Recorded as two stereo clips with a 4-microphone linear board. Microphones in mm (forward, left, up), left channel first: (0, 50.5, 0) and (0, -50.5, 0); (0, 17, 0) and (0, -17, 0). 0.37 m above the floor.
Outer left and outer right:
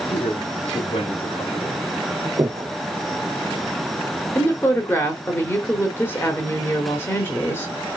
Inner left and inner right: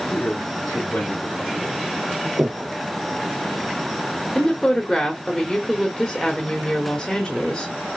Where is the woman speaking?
25° left (ahead or behind), 1.2 m.